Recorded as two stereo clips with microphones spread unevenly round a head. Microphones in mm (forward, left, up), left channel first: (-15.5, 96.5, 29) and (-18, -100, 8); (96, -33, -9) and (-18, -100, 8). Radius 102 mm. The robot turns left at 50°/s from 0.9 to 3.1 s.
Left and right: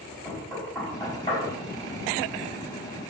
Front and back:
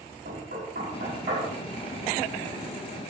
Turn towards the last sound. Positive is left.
turn(degrees=70)